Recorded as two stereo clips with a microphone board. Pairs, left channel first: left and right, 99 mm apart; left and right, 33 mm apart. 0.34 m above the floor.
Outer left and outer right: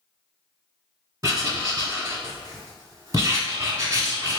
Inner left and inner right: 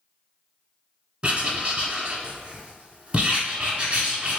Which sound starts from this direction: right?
Writing, at 1.2 s.